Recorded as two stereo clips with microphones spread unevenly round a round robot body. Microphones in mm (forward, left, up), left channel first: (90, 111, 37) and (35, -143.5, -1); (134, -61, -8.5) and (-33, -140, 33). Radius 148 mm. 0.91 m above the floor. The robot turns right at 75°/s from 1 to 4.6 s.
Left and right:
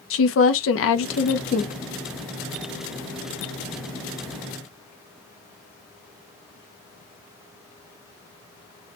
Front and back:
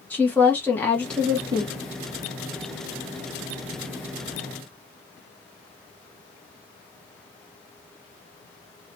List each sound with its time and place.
0.1 s a woman speaking: 85° left, 0.6 m; by 1.8 s 145° left, 0.6 m